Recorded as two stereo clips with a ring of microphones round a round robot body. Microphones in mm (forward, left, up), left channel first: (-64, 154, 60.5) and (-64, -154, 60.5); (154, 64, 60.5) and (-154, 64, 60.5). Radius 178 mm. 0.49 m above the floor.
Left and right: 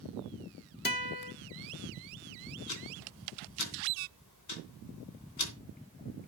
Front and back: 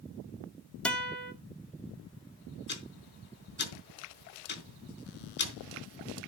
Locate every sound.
0.8 s a guitar: 85° left, 1.5 m
2.7 s ticking: 55° left, 3 m